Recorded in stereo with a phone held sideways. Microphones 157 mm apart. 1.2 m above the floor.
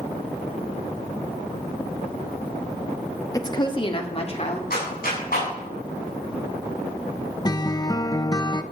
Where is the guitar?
25° left (ahead or behind), 0.7 m.